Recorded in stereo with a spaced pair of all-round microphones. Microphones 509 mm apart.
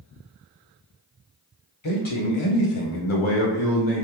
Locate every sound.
1.8 s a man speaking: 60° left (ahead or behind), 1.0 m; by 4.0 s 35° left (ahead or behind), 0.8 m